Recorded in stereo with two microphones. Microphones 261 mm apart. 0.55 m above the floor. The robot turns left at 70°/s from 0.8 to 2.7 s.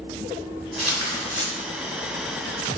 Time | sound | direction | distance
0.8 | tearing paper | 95° left | 1.0 m